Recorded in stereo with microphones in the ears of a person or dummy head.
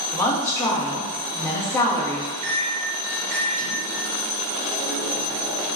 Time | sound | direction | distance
0.1 | a woman speaking | 15° left (ahead or behind) | 0.8 m
2.4 | a microwave | 40° right (ahead or behind) | 1.0 m